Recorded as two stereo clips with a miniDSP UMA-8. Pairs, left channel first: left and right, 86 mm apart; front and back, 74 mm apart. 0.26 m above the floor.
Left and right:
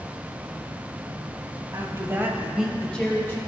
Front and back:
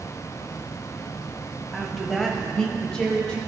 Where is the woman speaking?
90° right, 1.2 m; by 3.4 s 65° left, 1.0 m.